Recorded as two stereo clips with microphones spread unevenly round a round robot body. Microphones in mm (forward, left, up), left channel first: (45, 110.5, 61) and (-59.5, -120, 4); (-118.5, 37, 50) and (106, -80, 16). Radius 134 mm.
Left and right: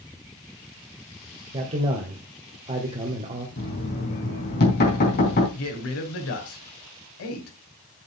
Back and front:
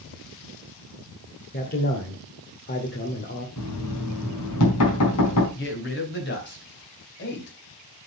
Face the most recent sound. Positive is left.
turn(degrees=100)